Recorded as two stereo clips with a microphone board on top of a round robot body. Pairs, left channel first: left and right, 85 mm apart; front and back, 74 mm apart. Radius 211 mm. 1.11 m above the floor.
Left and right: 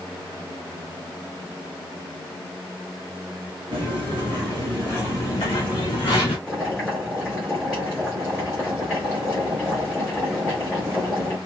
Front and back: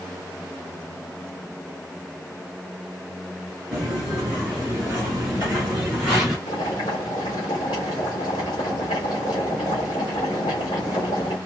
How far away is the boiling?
About 0.9 m.